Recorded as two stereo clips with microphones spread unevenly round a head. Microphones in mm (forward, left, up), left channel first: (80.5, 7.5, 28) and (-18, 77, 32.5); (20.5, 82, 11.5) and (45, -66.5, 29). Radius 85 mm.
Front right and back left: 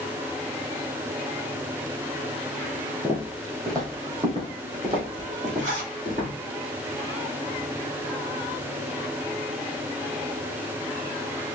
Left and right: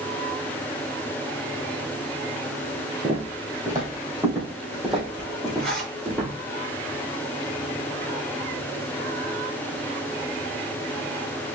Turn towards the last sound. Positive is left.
turn(degrees=-175)